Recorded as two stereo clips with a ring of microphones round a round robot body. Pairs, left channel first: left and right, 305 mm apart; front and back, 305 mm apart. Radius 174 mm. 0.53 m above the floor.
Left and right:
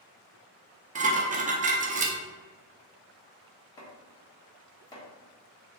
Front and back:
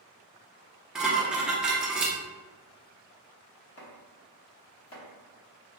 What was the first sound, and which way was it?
Dishes clattering, 95° right.